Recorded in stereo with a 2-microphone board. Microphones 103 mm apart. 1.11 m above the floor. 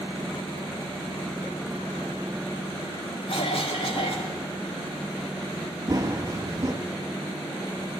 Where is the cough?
65° left (ahead or behind), 2 m.